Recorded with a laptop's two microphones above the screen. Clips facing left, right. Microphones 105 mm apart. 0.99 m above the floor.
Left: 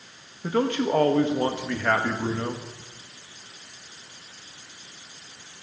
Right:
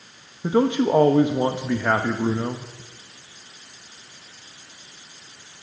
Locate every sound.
0.4 s a man speaking: 15° right (ahead or behind), 1.0 m